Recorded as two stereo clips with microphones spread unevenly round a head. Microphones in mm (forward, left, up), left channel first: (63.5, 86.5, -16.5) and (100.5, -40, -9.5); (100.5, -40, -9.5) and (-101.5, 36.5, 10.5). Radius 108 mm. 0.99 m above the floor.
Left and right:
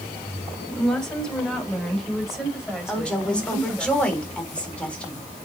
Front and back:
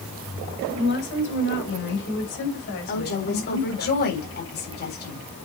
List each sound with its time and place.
0.7 s a woman speaking: 25° left, 3.5 m; by 3.9 s 10° left, 5.5 m
2.9 s a woman speaking: 25° left, 3.5 m